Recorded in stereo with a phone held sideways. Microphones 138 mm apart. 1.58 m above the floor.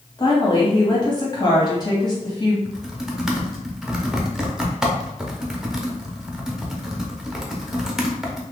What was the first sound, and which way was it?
A woman speaking, 30° left (ahead or behind).